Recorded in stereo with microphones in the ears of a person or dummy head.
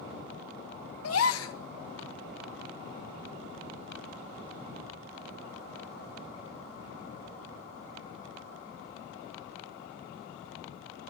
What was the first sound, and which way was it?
A gasp, 75° left (ahead or behind).